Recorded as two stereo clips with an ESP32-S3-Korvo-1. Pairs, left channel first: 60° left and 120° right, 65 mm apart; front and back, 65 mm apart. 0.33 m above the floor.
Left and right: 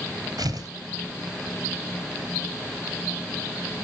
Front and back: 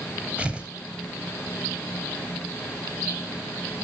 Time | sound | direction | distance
0.4 | tearing paper | 105° right | 2 m